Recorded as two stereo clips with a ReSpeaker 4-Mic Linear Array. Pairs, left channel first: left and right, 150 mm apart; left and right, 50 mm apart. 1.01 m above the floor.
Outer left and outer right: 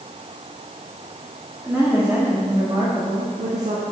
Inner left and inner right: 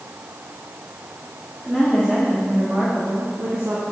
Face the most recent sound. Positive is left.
turn(degrees=-65)  # may be behind; listen again after turning